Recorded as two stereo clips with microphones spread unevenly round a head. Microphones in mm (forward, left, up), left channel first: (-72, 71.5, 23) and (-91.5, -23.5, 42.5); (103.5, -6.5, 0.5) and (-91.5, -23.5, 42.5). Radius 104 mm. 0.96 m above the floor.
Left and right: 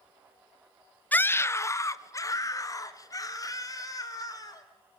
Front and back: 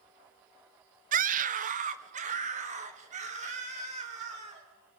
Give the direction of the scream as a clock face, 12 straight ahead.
7 o'clock.